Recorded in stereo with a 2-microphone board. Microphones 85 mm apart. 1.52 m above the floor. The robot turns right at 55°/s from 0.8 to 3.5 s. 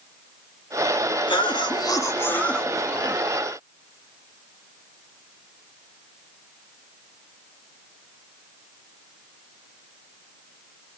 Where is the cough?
100° left, 0.9 m; by 3.2 s 155° right, 0.9 m.